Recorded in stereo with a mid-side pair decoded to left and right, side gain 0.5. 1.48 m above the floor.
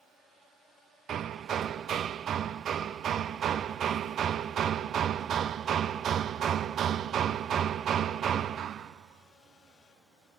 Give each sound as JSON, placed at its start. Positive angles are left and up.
{"t": 1.1, "sound": "hammering", "azimuth_deg": -55, "distance_m": 0.5}